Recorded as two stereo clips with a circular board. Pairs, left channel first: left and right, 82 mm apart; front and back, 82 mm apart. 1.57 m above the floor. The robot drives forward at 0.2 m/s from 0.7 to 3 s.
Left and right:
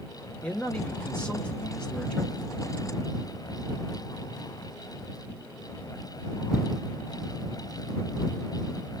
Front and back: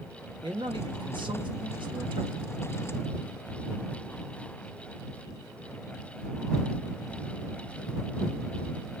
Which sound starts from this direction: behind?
A man speaking, at 0.4 s.